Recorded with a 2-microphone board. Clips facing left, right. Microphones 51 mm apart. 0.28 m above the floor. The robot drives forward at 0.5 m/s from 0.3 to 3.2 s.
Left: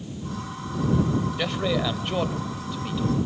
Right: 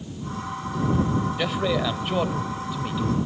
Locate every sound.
1.4 s a man speaking: 5° right (ahead or behind), 1.3 m